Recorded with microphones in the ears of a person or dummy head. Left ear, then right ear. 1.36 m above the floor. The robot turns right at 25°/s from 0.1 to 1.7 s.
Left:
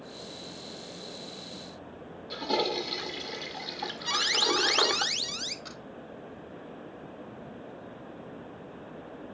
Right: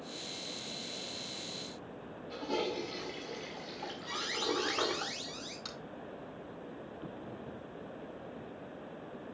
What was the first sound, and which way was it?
A toilet flushing, 35° left (ahead or behind).